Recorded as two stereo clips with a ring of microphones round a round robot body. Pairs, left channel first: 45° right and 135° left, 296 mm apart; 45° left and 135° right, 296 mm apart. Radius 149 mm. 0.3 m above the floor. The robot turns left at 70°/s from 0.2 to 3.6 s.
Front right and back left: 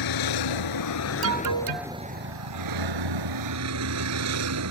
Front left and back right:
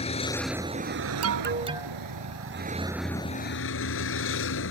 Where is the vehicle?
25° right; by 4.7 s 95° left.